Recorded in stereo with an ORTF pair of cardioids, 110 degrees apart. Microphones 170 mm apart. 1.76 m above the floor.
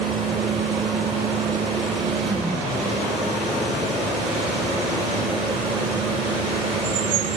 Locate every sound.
0.0 s a fan: 35° right, 5.5 m